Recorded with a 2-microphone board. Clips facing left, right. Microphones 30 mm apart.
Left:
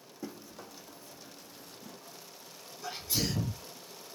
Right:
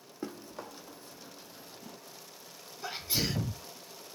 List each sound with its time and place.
0.2 s running footsteps: 50° right (ahead or behind), 1.3 m; by 2.0 s 5° right (ahead or behind), 0.6 m
2.8 s a sneeze: 25° right (ahead or behind), 1.0 m